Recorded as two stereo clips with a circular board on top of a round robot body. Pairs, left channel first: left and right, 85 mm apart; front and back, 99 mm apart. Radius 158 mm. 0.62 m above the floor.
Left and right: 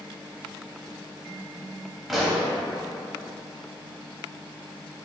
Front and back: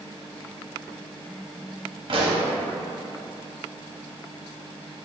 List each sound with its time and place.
2.1 s a pop: straight behind, 0.9 m